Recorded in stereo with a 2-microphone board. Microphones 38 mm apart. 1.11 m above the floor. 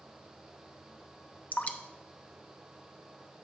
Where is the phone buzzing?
No phone buzzing in this recording.